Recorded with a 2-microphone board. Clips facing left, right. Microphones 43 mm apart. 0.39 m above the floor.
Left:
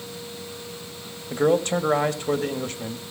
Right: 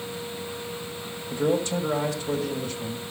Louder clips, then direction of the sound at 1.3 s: Left 4 dB; 55° left (ahead or behind).